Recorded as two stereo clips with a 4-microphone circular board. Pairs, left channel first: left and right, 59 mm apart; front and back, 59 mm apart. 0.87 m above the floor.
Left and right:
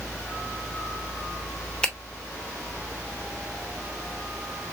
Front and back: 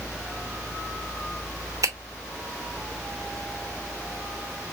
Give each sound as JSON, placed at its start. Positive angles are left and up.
{"t": 1.8, "sound": "a finger snap", "azimuth_deg": 160, "distance_m": 0.9}